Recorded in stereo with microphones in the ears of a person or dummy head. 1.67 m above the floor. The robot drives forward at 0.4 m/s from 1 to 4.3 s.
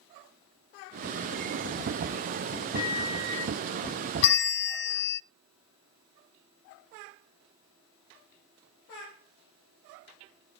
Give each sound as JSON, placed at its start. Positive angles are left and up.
{"t": 2.7, "sound": "a microwave", "side_deg": 50, "distance_m": 4.5}
{"t": 4.2, "sound": "a bell", "side_deg": 55, "distance_m": 0.6}